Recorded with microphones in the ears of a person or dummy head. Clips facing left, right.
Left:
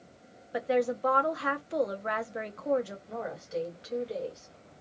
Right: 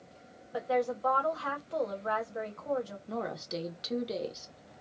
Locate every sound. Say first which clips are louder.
0.5 s a woman speaking: left 3 dB; 30° left (ahead or behind), 0.7 m
3.1 s a woman speaking: even; 50° right (ahead or behind), 1.1 m